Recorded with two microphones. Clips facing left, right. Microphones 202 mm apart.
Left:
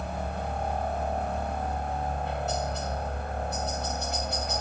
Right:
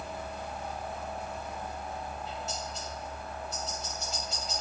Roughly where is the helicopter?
Left.